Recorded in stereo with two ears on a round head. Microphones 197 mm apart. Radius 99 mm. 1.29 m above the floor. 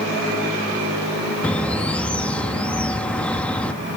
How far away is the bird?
About 0.9 m.